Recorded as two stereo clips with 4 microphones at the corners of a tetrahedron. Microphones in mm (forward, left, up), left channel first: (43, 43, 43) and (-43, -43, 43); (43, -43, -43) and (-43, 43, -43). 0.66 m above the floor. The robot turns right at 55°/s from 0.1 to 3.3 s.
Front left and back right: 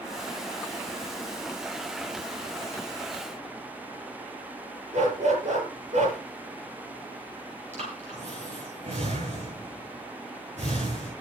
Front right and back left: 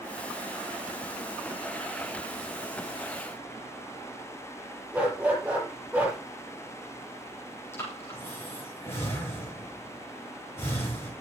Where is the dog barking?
145° right, 6.5 m.